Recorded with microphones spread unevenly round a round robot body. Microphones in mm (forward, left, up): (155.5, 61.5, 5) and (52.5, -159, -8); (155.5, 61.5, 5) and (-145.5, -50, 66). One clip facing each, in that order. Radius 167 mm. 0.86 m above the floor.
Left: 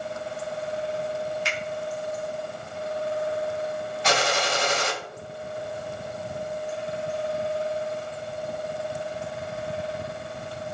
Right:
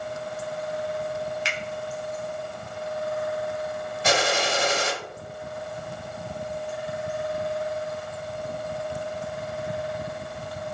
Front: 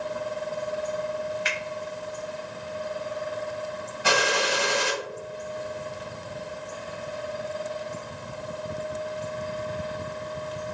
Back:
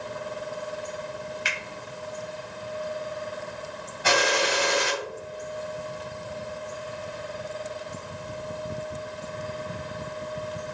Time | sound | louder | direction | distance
1.4 | a finger snap | left 2 dB, front 4 dB | 100° right | 1.5 m
4.0 | a gunshot | right 2 dB, back 1 dB | 65° right | 2.0 m